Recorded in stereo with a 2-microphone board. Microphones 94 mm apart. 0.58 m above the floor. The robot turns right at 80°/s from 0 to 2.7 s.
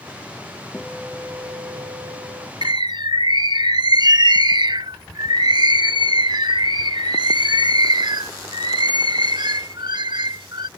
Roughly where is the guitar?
Behind.